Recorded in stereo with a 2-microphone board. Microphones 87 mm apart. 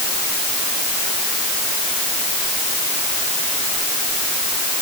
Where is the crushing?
I don't hear crushing.